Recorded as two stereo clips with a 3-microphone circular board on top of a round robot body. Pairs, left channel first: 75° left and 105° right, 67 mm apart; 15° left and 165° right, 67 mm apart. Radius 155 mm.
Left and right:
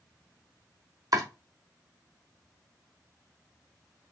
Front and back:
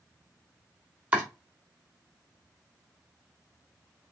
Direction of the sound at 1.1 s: 100° right.